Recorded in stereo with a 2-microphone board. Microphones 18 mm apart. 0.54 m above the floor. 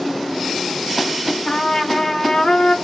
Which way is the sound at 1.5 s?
40° left (ahead or behind).